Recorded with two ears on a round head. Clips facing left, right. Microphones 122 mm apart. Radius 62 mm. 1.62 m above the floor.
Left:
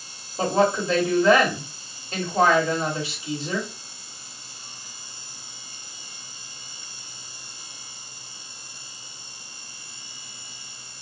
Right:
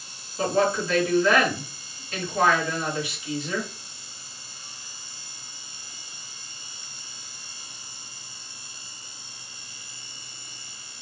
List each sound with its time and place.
0.4 s a woman speaking: 25° left (ahead or behind), 1.2 m